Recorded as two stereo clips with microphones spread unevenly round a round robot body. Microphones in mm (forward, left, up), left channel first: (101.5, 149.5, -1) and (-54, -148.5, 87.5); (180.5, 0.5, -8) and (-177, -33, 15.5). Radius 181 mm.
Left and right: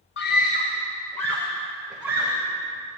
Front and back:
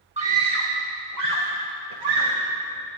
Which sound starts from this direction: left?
A scream, at 0.2 s.